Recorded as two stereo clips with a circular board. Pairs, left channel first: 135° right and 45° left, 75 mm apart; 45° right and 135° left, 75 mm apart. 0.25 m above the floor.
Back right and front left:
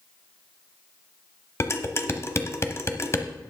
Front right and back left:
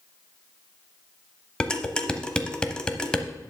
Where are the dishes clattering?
115° right, 0.9 m.